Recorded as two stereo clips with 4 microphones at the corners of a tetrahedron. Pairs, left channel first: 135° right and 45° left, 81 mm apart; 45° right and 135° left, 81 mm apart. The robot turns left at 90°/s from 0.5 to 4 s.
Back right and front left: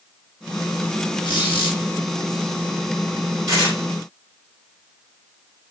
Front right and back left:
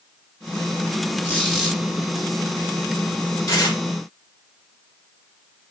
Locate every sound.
1.2 s a squeak: 110° right, 2.0 m; by 1.8 s 160° right, 2.0 m
3.5 s tearing paper: 5° left, 2.5 m; by 3.8 s 20° right, 2.5 m